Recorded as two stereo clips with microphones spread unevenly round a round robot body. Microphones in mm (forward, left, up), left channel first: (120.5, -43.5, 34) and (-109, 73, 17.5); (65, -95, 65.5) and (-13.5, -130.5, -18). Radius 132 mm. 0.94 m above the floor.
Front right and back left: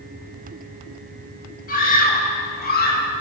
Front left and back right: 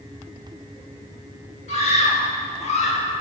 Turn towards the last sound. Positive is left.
turn(degrees=25)